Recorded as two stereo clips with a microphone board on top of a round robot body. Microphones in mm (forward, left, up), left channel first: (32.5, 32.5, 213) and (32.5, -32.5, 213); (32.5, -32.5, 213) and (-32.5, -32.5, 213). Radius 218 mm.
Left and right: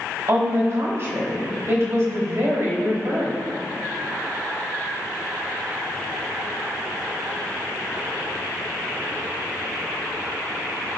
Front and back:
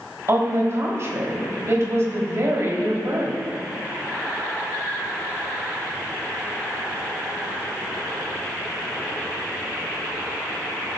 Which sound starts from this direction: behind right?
A woman speaking, at 0.3 s.